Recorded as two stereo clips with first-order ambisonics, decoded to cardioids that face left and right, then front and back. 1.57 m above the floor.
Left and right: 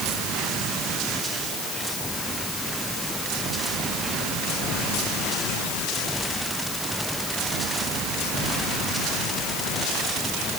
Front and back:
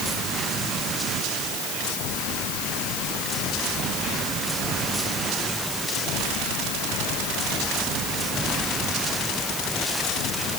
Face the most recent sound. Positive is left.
No sound to turn to.